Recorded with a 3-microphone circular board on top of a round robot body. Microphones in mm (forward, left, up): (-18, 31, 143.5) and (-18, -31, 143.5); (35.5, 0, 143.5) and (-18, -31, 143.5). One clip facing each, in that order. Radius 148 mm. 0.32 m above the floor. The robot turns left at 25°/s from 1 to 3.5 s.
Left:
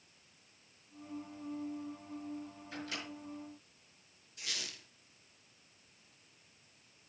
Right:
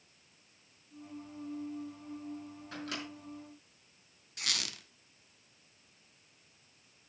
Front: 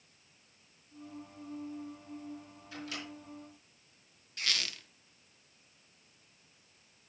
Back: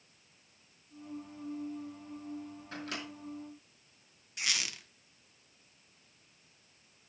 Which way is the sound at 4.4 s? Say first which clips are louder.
Right 5 dB, even; 75° right.